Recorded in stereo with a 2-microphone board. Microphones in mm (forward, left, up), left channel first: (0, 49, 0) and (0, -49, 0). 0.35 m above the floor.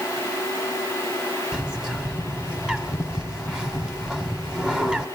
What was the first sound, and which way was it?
A bird, 10° right (ahead or behind).